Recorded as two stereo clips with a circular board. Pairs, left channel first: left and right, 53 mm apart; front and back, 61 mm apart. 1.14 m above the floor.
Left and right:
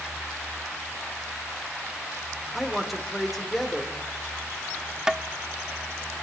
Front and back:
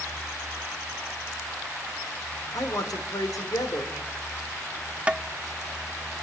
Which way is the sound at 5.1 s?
150° right.